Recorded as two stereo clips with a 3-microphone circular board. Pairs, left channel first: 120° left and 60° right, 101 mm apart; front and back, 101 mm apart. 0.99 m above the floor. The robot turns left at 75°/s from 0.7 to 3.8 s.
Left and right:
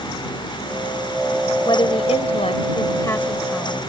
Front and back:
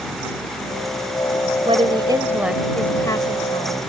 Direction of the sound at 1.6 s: 165° left.